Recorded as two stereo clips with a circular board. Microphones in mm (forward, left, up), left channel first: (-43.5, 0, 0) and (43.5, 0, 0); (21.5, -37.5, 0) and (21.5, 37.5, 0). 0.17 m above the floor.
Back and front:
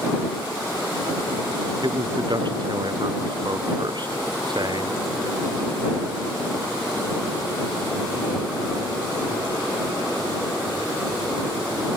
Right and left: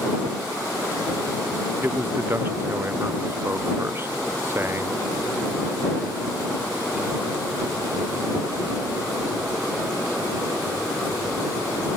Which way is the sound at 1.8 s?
30° left.